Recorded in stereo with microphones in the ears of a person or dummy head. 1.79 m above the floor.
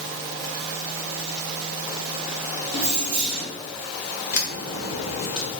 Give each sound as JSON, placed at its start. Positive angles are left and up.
{"t": 2.7, "sound": "keys jangling", "side_deg": -60, "distance_m": 1.2}
{"t": 4.3, "sound": "a crack", "side_deg": 85, "distance_m": 0.9}